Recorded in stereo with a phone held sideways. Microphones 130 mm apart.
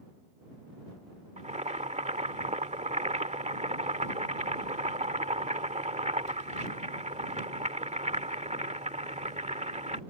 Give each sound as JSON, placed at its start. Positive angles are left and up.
{"t": 1.4, "sound": "boiling", "side_deg": -60}